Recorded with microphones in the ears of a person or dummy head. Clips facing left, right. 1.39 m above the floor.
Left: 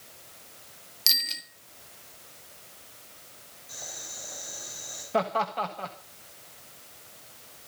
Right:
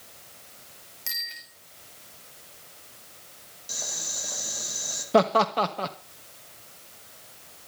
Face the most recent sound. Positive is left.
turn(degrees=-70)  # may be behind; listen again after turning